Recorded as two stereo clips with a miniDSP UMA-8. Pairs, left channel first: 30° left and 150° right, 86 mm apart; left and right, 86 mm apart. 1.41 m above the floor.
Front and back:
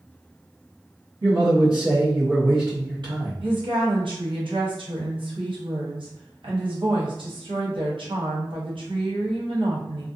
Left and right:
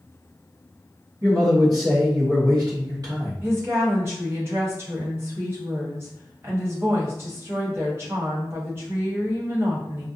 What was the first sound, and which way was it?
A man speaking, 130° right.